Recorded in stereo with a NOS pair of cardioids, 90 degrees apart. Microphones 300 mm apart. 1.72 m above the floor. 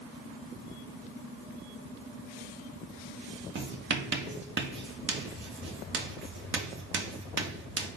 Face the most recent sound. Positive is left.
turn(degrees=-40)